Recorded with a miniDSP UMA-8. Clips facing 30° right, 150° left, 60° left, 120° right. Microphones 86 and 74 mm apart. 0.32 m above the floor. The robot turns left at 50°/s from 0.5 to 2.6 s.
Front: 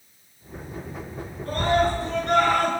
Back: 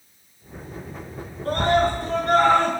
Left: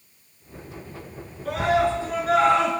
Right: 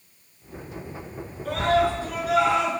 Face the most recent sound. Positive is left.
turn(degrees=90)